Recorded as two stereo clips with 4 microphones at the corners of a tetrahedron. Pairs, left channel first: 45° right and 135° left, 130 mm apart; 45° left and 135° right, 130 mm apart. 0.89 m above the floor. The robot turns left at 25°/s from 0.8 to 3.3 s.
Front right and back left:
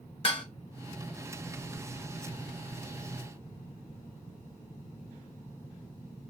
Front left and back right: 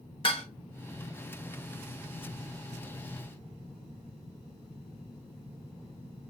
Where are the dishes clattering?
Straight ahead, 0.6 m.